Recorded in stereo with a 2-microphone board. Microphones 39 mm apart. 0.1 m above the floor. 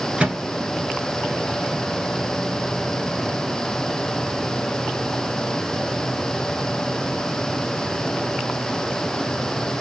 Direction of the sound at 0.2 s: 25° right (ahead or behind).